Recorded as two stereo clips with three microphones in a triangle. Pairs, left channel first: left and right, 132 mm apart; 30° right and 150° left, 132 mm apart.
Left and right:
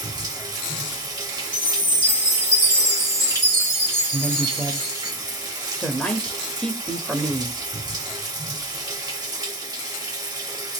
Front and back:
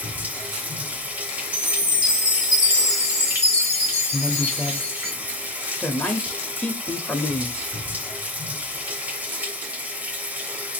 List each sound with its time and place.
0.0 s running water: 135° right, 0.8 m
1.5 s a chime: 50° left, 2 m
4.1 s a woman speaking: 25° left, 0.8 m